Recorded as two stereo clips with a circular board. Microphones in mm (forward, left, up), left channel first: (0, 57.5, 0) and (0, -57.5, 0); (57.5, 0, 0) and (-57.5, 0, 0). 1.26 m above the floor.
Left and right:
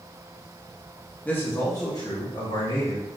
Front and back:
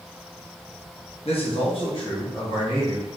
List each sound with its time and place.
1.2 s a man speaking: 15° left, 0.8 m; by 3.1 s 50° left, 1.6 m